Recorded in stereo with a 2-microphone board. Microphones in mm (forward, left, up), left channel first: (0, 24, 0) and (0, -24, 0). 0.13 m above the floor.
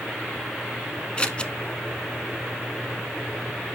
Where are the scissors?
25° left (ahead or behind), 0.7 m.